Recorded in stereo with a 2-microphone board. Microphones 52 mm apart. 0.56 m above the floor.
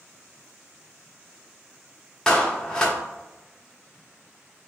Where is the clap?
15° left (ahead or behind), 0.7 m.